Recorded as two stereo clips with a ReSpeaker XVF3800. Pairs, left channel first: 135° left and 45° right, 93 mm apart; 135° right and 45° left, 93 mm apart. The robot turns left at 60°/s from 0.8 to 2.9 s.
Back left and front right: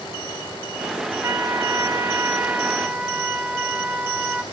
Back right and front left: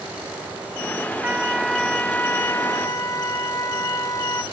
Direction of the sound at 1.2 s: 15° right.